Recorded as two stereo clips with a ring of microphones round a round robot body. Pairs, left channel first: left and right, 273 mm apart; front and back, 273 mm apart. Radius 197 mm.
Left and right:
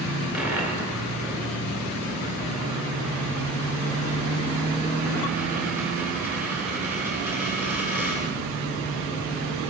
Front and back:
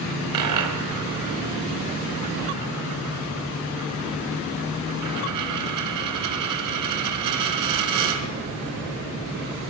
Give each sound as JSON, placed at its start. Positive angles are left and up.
{"t": 0.3, "sound": "a dropped coin", "azimuth_deg": -175, "distance_m": 2.0}